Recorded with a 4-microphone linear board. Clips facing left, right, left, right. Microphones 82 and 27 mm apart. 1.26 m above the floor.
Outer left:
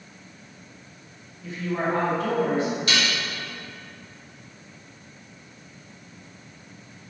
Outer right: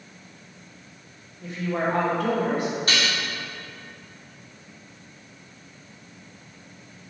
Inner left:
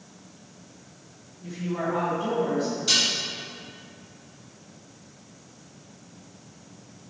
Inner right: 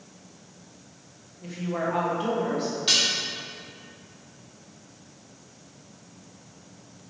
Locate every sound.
1.4 s a woman speaking: 60° right (ahead or behind), 1.8 m
2.9 s dishes clattering: 45° right (ahead or behind), 2 m